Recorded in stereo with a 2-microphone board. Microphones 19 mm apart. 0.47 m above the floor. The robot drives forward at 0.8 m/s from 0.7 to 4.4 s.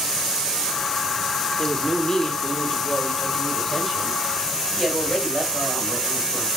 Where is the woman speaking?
30° left (ahead or behind), 1.5 m; by 6.5 s 15° left (ahead or behind), 3 m.